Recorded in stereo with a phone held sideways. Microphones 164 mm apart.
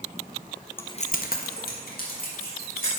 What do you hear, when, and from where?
0.8 s keys jangling: 15° left (ahead or behind), 0.6 m; by 3.0 s 65° left (ahead or behind), 3.5 m